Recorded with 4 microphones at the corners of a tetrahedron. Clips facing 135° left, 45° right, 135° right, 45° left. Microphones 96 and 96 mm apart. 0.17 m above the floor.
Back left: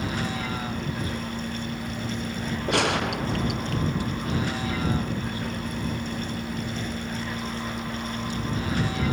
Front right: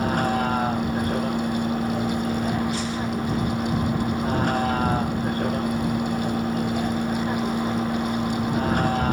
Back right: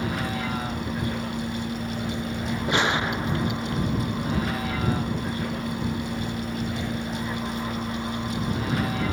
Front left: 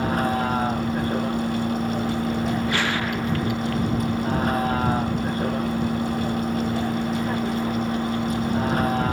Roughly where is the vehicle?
Ahead.